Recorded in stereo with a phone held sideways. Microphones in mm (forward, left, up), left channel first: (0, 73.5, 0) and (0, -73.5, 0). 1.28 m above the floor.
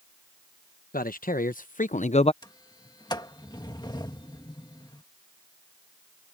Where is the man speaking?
75° left (ahead or behind); by 2.3 s 45° left (ahead or behind).